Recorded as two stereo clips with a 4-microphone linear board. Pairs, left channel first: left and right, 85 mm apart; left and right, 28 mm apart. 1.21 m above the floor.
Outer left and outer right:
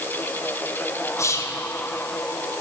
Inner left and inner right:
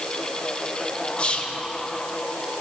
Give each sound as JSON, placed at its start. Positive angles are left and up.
{"t": 1.2, "sound": "whispering", "side_deg": 35, "distance_m": 0.7}